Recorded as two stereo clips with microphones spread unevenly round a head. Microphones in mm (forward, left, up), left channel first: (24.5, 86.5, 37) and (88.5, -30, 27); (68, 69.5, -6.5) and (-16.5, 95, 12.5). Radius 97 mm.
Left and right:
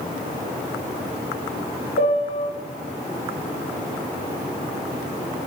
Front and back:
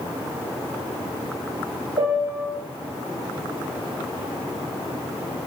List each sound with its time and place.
2.0 s a piano: 170° left, 1.5 m